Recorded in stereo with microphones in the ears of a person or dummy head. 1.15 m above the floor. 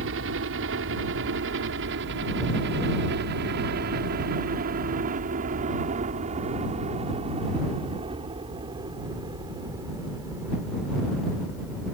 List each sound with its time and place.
0.0 s a helicopter: 70° right (ahead or behind); by 11.9 s 15° right (ahead or behind)